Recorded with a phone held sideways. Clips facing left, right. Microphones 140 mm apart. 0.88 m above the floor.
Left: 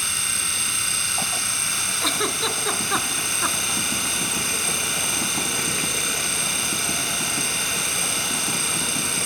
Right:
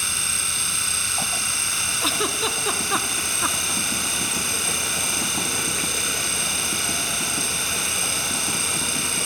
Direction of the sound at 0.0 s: Centre (ahead or behind).